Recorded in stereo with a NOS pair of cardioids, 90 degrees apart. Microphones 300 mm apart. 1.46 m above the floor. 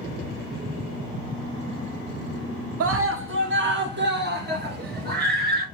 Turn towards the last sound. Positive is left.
turn(degrees=-35)